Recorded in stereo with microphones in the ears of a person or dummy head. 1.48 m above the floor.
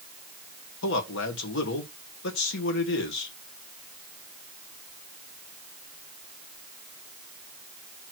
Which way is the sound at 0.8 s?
70° left (ahead or behind).